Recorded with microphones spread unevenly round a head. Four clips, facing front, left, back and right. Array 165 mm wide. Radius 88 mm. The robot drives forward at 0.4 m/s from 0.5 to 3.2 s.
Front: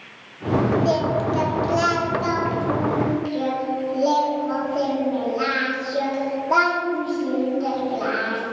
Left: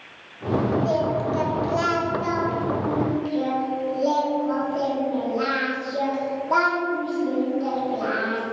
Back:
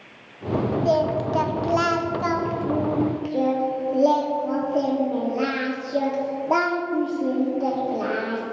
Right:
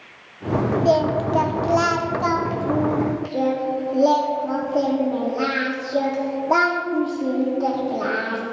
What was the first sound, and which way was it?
Singing, 75° right.